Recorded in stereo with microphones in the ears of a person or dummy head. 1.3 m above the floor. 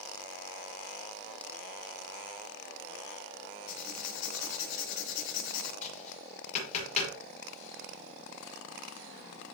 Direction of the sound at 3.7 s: 60° left (ahead or behind).